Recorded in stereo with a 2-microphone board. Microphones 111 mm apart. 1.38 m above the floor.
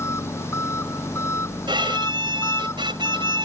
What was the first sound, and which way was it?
An engine running, 25° left (ahead or behind).